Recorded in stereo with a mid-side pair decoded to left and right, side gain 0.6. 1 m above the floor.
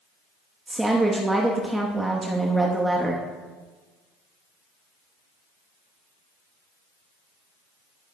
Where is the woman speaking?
10° right, 1.1 m.